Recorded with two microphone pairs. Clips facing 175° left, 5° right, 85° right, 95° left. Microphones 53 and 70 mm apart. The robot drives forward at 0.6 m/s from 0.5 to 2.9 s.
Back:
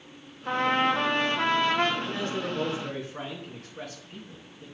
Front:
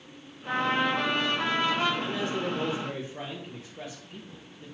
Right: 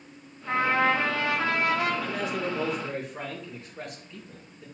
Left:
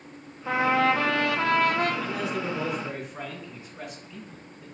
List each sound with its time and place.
0.5 s a trumpet: 110° left, 1.1 m; by 1.9 s 140° left, 1.6 m
2.0 s a man speaking: 175° left, 2.5 m